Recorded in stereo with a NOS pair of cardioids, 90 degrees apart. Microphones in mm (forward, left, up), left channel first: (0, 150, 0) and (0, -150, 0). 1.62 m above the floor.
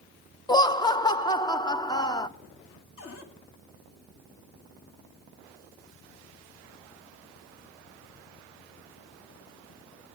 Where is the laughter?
15° left, 0.8 m.